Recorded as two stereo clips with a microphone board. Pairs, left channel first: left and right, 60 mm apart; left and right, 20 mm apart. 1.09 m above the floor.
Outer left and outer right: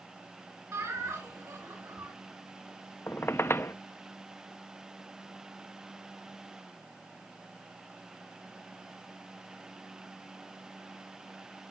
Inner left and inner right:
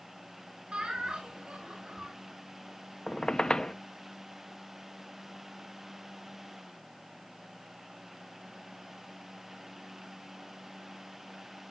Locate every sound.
0.7 s laughter: 60° right (ahead or behind), 7 m
3.1 s a squeak: 40° left (ahead or behind), 0.6 m